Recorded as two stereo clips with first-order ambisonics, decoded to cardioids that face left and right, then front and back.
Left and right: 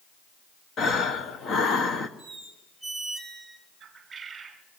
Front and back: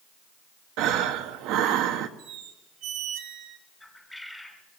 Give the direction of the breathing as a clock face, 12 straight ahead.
7 o'clock.